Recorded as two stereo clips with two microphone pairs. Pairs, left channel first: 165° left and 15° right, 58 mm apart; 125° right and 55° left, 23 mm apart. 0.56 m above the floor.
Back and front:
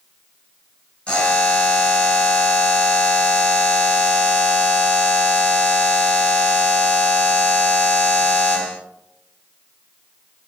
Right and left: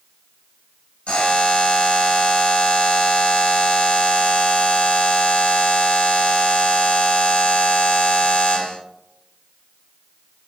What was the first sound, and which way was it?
A buzzer, 125° right.